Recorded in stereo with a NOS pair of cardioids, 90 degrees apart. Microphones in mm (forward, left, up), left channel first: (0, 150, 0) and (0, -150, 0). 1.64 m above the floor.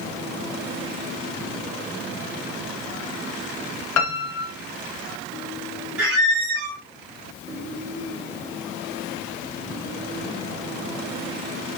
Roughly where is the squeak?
Ahead right.